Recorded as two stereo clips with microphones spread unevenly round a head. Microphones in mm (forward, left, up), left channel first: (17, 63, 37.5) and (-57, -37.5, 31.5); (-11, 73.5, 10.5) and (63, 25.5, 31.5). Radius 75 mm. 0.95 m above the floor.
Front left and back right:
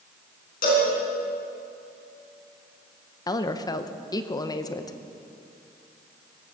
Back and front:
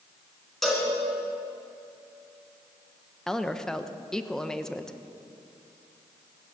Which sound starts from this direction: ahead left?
A cowbell, at 0.6 s.